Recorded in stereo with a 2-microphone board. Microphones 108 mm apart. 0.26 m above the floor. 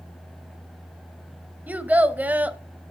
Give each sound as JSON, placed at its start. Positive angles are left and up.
{"t": 1.7, "sound": "a child speaking", "side_deg": -15, "distance_m": 0.6}